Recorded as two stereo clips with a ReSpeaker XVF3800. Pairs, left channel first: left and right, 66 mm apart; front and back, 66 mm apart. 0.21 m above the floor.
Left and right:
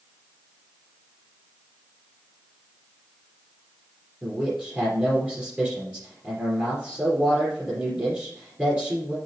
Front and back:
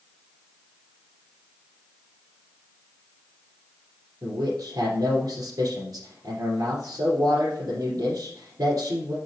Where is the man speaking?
165° right, 3 m.